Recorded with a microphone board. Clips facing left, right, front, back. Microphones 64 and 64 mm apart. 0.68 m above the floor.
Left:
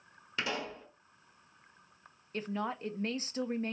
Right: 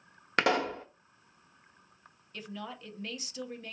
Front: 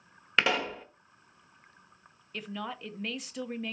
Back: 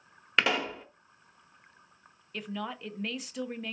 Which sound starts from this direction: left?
A woman speaking, at 2.3 s.